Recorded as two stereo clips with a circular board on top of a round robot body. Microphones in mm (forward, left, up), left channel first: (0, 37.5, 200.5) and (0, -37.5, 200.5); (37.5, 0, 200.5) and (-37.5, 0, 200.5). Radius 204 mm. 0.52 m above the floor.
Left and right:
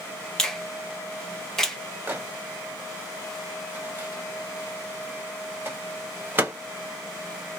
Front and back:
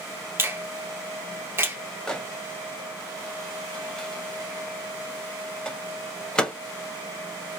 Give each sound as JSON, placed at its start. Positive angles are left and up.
{"t": 0.4, "sound": "a finger snap", "azimuth_deg": 165, "distance_m": 1.0}
{"t": 2.1, "sound": "a microwave", "azimuth_deg": -65, "distance_m": 1.0}